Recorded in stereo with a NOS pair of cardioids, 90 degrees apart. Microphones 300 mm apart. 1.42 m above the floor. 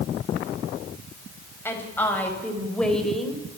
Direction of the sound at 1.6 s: 10° left.